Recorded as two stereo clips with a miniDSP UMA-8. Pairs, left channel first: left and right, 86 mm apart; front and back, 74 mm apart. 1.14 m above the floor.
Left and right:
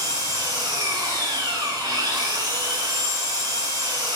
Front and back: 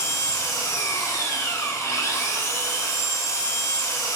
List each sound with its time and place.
0.0 s an engine running: 55° right, 3.5 m